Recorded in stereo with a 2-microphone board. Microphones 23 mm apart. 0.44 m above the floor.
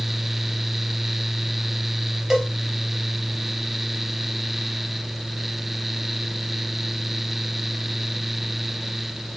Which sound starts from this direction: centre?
A cowbell, at 2.3 s.